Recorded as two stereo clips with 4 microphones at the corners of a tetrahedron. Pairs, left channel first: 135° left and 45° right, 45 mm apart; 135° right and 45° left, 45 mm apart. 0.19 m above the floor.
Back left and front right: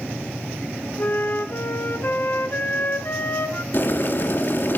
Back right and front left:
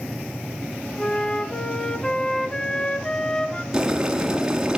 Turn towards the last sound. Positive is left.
turn(degrees=115)